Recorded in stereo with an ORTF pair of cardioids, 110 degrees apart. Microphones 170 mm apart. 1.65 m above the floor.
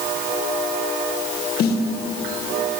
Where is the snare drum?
70° left, 1.7 m.